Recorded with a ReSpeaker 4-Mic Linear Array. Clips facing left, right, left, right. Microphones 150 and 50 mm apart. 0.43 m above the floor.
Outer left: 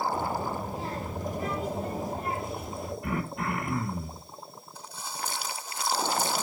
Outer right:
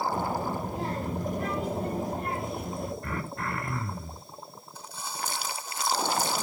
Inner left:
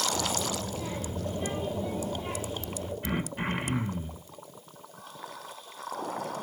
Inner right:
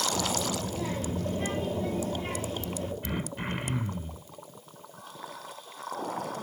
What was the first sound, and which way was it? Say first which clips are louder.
A child speaking: outer right 1 dB, inner right 1 dB; 55° right (ahead or behind).